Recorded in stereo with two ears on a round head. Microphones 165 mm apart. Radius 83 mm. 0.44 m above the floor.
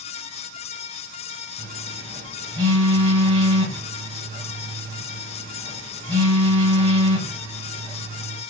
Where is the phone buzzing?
30° right (ahead or behind), 3.5 m.